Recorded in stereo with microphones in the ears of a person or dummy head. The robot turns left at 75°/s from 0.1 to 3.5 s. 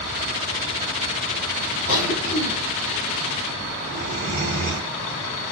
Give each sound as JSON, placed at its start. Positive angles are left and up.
{"t": 1.9, "sound": "a cough", "azimuth_deg": 80, "distance_m": 1.5}